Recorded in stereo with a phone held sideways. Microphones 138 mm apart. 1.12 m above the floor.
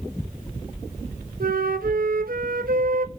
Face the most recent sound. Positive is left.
turn(degrees=-80)